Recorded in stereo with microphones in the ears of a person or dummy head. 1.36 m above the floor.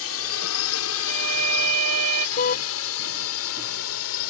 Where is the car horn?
50° left (ahead or behind).